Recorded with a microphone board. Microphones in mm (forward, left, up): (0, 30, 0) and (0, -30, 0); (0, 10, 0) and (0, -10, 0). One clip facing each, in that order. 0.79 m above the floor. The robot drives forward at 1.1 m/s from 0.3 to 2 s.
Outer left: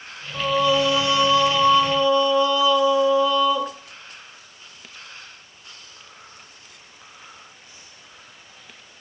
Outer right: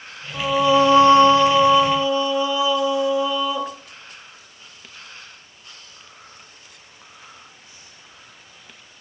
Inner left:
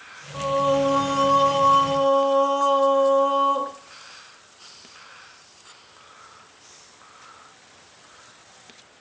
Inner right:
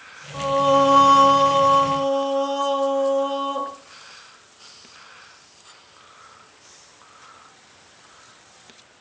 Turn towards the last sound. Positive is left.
turn(degrees=-15)  # may be behind; listen again after turning